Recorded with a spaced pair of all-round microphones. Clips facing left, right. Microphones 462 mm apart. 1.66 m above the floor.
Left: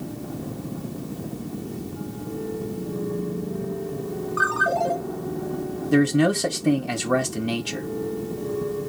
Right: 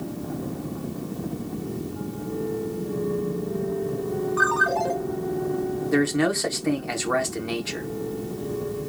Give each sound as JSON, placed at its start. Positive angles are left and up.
{"t": 4.4, "sound": "a ringtone", "side_deg": -10, "distance_m": 4.0}
{"t": 5.9, "sound": "a man speaking", "side_deg": 50, "distance_m": 1.2}